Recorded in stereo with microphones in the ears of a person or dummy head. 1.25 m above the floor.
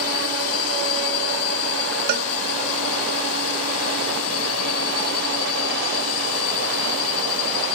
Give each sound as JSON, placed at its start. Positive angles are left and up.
{"t": 0.0, "sound": "a drone", "side_deg": 75}
{"t": 2.1, "sound": "a cowbell", "side_deg": -55}